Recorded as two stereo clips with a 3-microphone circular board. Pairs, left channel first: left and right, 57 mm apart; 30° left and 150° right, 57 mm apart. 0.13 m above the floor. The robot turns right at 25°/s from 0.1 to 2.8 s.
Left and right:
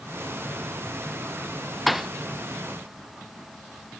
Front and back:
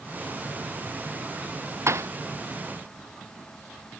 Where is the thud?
Straight behind; by 2.1 s 175° right.